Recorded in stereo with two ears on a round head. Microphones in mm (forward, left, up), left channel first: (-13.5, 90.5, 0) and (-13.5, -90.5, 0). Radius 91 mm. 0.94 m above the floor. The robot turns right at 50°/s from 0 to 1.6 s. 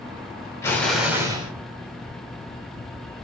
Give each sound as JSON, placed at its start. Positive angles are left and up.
{"t": 0.6, "sound": "an explosion", "azimuth_deg": 165, "distance_m": 1.3}